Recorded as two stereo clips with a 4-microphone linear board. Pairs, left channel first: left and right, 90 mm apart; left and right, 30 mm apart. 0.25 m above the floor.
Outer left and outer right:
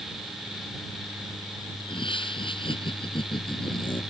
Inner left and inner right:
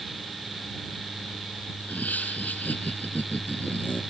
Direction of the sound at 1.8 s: 70° left (ahead or behind).